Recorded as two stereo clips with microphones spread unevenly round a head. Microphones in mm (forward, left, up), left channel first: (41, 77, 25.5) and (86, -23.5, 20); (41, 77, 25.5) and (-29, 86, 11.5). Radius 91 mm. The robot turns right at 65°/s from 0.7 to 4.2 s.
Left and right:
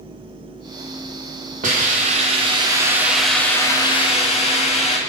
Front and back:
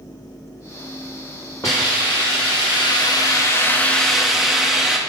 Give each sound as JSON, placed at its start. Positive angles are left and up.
{"t": 1.6, "sound": "a hiss", "azimuth_deg": -80, "distance_m": 2.5}